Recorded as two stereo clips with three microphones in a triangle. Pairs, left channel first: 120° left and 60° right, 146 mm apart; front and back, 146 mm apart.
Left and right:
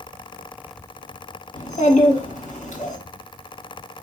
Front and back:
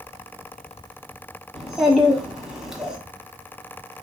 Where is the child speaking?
95° left, 1.0 m.